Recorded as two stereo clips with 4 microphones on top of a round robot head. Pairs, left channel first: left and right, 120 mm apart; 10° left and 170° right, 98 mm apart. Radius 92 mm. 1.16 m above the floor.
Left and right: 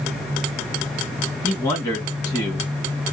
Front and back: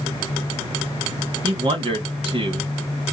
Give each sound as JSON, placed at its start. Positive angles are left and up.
{"t": 1.4, "sound": "a man speaking", "azimuth_deg": 155, "distance_m": 1.8}